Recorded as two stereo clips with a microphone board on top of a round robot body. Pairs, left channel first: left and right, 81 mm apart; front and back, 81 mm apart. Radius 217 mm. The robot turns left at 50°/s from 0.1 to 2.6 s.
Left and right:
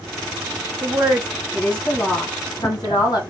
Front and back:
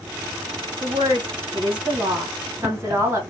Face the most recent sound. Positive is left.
turn(degrees=120)